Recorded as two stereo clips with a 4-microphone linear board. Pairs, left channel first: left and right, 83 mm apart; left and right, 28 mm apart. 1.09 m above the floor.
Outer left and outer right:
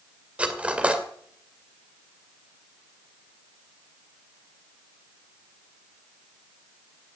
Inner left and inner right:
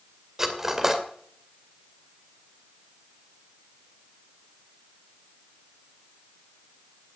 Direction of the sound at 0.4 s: 15° right (ahead or behind).